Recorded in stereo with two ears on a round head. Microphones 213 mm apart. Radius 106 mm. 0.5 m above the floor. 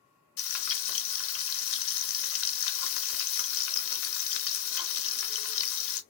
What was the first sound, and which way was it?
Frying, 60° left (ahead or behind).